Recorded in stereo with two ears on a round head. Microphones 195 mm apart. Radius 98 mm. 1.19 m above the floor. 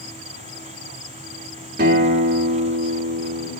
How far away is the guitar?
About 3 m.